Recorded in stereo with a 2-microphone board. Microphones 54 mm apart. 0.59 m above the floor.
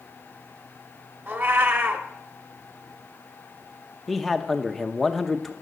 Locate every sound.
1.3 s a cat meowing: 40° right (ahead or behind), 0.9 m
4.1 s a man speaking: centre (ahead or behind), 0.7 m